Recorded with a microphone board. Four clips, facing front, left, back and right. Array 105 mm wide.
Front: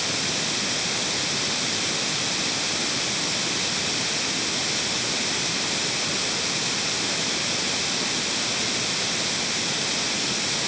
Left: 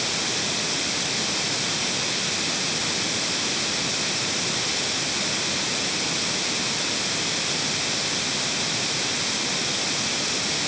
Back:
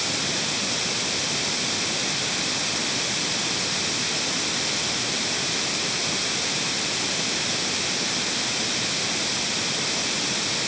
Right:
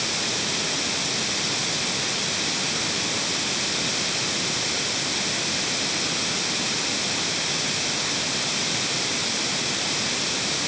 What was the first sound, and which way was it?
Only background noise.